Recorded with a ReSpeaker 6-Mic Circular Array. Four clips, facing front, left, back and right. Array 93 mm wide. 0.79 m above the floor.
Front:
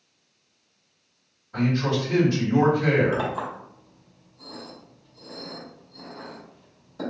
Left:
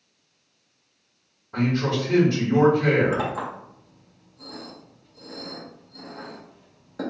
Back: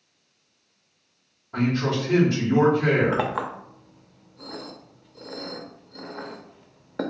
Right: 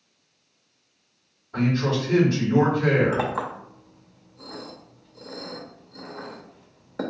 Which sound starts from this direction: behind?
A clink, at 3.1 s.